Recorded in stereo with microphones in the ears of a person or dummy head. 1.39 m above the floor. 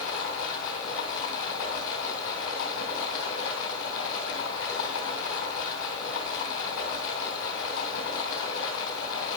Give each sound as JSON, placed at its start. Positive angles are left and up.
{"t": 0.0, "sound": "running water", "side_deg": 60, "distance_m": 2.5}